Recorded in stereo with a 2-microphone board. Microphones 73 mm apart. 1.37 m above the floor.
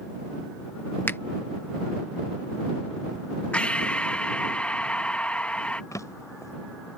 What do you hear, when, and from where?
1.1 s a finger snap: 30° left (ahead or behind)
3.5 s breathing: 15° left (ahead or behind)
5.9 s a drawer: 50° left (ahead or behind)